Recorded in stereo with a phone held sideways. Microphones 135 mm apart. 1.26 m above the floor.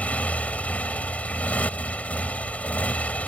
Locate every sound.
0.0 s a motorcycle: 10° left (ahead or behind)